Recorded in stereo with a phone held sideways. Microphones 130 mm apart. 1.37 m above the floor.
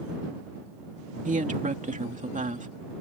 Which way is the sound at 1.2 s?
75° right (ahead or behind).